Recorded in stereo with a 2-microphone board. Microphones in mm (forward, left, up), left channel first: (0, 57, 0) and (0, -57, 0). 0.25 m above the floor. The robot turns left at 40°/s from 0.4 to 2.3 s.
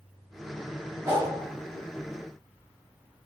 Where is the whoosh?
20° right (ahead or behind), 1.2 m.